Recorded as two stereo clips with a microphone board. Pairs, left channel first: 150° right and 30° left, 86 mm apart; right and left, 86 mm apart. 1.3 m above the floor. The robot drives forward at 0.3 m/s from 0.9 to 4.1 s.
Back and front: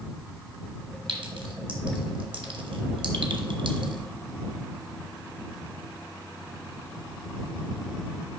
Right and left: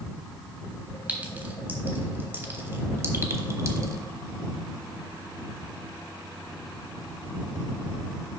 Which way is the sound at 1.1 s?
20° left.